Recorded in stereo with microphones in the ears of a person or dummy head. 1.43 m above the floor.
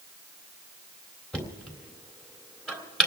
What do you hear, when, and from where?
1.3 s knocking: centre (ahead or behind), 3 m